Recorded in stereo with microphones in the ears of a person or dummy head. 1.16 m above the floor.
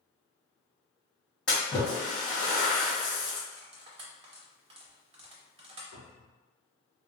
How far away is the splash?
About 1.3 m.